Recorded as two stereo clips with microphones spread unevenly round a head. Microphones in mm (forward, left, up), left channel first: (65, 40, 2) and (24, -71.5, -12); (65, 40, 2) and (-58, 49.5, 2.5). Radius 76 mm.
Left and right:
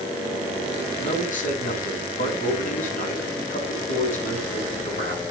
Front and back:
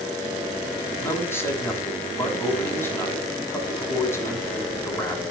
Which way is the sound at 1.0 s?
65° left.